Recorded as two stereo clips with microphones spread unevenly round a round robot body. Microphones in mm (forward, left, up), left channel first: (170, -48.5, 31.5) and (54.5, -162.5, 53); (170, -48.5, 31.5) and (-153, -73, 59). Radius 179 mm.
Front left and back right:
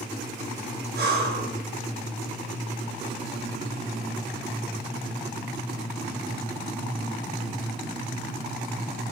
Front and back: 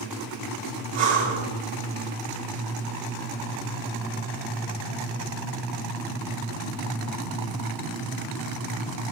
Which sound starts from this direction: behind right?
Breathing, at 0.9 s.